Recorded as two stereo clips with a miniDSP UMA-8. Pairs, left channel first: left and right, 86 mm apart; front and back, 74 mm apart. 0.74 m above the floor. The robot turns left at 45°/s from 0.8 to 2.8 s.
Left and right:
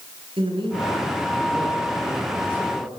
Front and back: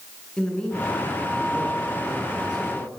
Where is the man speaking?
80° right, 8 m; by 2.9 s 170° right, 8 m.